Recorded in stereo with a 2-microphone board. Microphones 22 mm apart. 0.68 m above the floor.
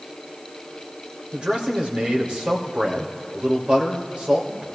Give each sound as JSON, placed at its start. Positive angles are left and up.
{"t": 1.3, "sound": "a man speaking", "side_deg": -50, "distance_m": 3.0}